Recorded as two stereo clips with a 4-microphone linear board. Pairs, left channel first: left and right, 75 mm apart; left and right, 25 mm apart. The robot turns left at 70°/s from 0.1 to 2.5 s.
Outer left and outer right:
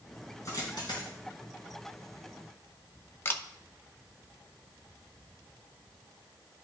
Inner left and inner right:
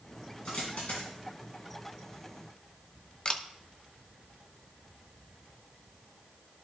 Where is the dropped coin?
40° left (ahead or behind), 4 m; by 1.1 s 80° left, 4 m.